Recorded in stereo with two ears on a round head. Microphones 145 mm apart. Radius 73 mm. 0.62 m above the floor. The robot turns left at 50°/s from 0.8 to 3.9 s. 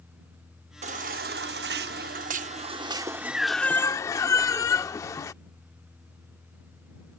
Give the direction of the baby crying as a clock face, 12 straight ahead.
2 o'clock.